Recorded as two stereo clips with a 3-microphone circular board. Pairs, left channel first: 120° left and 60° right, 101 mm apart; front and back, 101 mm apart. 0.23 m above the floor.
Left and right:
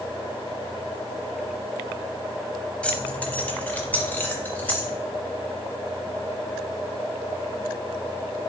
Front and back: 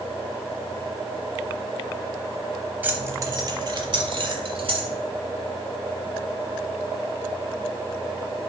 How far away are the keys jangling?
About 0.8 m.